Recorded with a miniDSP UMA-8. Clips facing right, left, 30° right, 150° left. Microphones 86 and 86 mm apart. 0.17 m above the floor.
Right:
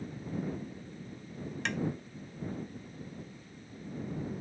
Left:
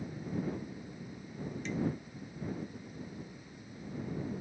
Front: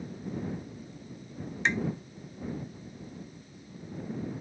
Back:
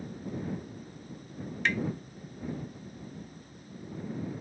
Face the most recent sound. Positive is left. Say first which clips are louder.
# right 2 dB, front 1 dB
turn(degrees=-100)